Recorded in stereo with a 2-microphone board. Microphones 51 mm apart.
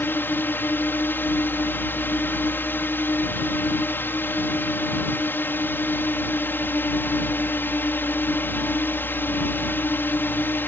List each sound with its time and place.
0.0 s a drone: 45° left (ahead or behind)